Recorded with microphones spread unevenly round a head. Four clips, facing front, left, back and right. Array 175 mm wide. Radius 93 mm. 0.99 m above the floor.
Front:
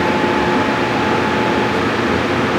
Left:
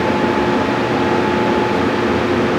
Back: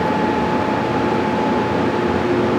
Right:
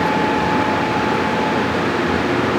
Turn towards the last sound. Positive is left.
No sound to turn to.